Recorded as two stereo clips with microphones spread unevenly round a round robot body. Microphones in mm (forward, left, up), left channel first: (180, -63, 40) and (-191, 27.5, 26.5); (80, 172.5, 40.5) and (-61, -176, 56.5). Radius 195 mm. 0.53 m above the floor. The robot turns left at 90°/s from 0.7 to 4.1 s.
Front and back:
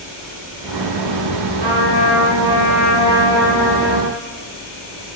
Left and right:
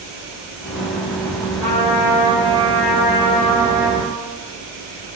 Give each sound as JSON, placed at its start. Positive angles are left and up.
{"t": 1.6, "sound": "a trumpet", "azimuth_deg": 160, "distance_m": 2.0}